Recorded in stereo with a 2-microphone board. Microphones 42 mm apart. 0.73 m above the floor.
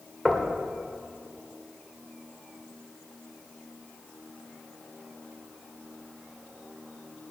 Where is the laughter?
I don't hear laughter.